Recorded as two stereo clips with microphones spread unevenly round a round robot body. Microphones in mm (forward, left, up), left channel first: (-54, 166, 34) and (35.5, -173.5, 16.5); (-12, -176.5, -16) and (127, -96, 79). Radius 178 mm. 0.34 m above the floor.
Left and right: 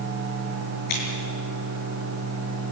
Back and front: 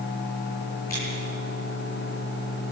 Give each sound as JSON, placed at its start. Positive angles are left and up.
{"t": 0.9, "sound": "scissors", "azimuth_deg": 140, "distance_m": 7.0}